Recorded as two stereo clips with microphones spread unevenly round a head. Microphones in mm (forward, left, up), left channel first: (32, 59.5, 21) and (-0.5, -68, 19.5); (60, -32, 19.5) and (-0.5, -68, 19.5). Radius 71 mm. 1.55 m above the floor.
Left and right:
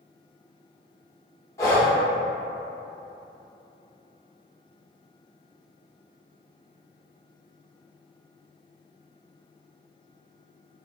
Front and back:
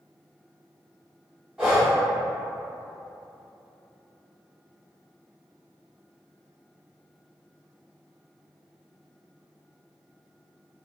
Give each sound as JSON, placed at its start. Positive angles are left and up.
{"t": 1.6, "sound": "breathing", "azimuth_deg": 135, "distance_m": 0.9}